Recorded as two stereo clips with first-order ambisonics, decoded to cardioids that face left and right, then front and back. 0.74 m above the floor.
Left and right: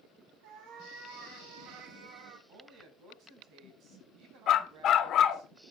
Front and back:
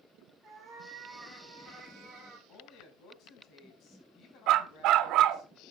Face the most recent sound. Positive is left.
turn(degrees=145)